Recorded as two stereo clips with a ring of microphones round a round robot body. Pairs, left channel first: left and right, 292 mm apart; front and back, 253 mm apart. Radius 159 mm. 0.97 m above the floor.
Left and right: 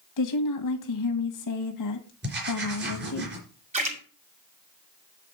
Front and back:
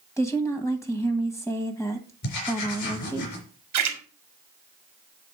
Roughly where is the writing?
Ahead right.